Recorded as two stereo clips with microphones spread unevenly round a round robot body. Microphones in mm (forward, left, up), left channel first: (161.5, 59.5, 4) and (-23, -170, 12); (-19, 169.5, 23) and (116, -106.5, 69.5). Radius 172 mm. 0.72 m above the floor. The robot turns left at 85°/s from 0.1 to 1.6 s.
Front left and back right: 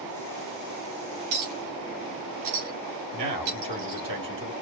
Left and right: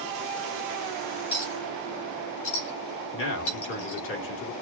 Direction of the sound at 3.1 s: 155° left.